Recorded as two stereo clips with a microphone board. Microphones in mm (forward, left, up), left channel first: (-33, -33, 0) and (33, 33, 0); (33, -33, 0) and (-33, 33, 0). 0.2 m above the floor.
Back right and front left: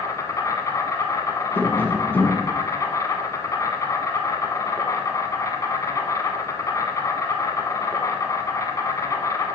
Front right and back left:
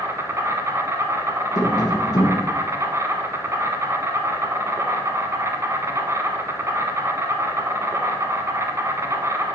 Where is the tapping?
70° right, 1.1 m.